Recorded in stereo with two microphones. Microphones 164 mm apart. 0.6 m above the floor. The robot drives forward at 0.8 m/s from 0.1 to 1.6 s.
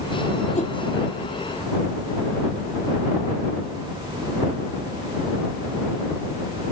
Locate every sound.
0.6 s a whoosh: 45° left (ahead or behind)